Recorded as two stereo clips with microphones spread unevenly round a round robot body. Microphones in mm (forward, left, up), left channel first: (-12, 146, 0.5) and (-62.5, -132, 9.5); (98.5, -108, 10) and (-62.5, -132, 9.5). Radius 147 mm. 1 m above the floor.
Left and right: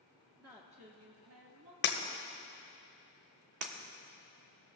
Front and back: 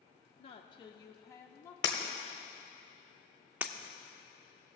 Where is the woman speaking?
10° right, 0.7 m; by 1.7 s 70° right, 1.2 m.